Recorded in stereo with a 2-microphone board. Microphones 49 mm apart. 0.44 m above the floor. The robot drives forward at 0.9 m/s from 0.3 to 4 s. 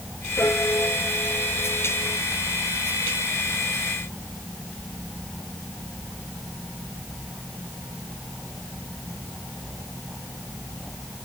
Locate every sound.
0.4 s a piano: 50° left (ahead or behind); by 2.2 s 35° left (ahead or behind)